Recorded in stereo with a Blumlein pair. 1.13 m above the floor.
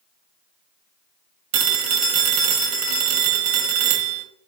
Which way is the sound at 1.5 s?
45° right.